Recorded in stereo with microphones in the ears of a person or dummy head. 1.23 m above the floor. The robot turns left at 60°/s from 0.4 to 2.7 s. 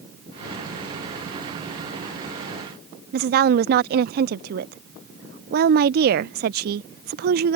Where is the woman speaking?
55° right (ahead or behind).